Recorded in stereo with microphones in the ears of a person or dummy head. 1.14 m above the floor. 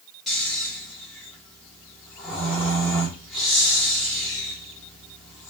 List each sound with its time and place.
0.3 s snoring: centre (ahead or behind), 0.8 m